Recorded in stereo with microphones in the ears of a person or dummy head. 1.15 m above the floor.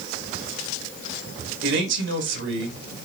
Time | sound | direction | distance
1.6 | a man speaking | 70° right (ahead or behind) | 1.8 m